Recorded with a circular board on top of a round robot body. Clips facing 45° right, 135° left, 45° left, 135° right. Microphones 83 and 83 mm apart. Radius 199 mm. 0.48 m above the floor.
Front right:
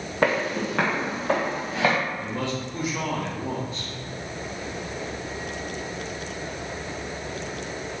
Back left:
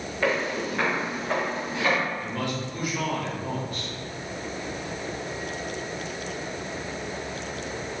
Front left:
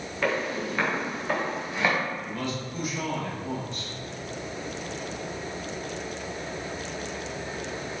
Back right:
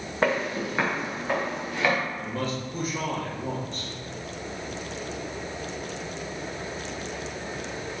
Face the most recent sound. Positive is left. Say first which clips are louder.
# front right 1 dB, back right 2 dB
turn(degrees=-100)